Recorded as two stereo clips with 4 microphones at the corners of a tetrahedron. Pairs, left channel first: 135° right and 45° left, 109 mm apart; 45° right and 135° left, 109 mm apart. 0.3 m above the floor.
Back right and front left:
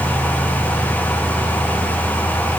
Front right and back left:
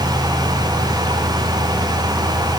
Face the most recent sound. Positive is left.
No sound to turn to.